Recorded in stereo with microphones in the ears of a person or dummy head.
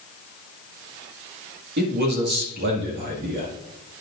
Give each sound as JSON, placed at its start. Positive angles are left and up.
{"t": 1.8, "sound": "a man speaking", "side_deg": -45, "distance_m": 1.8}